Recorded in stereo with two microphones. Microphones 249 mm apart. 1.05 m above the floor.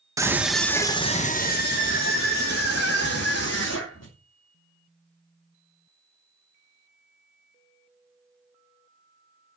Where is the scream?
15° right (ahead or behind), 1.3 m; by 4.1 s 75° left (ahead or behind), 3 m.